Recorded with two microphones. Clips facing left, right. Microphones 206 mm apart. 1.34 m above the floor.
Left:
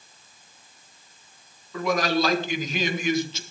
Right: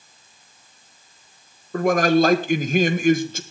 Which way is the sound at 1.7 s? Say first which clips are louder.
Right 7 dB; 50° right (ahead or behind).